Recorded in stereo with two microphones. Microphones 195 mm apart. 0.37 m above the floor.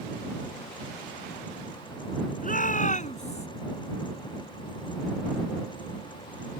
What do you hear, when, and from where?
2.4 s a shout: 45° left (ahead or behind); by 3.5 s 35° left (ahead or behind)